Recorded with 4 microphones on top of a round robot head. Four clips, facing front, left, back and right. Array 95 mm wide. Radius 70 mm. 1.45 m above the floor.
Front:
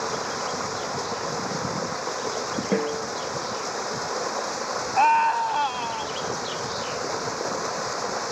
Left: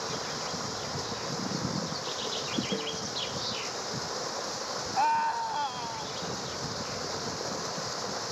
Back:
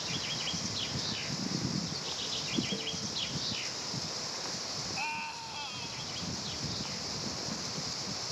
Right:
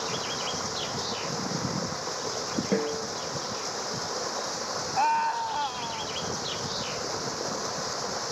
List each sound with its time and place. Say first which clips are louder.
0.0 s running water: right 3 dB, front 13 dB; 5° right
2.7 s a snare drum: right 6 dB, front 15 dB; 20° right
5.0 s a scream: right 1 dB, front 22 dB; straight ahead